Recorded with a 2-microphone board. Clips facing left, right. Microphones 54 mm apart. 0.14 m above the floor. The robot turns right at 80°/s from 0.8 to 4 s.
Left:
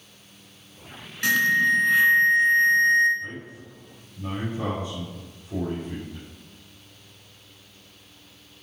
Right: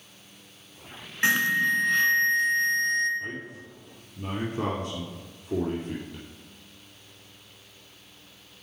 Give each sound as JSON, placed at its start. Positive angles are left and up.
{"t": 1.2, "sound": "an alarm", "azimuth_deg": -45, "distance_m": 1.0}
{"t": 3.2, "sound": "a man speaking", "side_deg": -50, "distance_m": 3.5}